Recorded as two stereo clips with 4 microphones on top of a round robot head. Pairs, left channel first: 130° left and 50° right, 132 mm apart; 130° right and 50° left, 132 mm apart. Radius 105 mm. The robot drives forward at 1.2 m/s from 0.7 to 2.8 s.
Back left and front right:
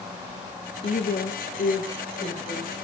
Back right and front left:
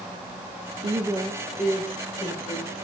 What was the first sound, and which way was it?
A woman speaking, 95° left.